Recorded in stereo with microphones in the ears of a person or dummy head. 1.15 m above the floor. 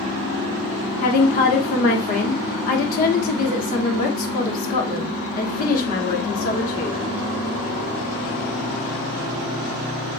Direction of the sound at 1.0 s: 40° left (ahead or behind).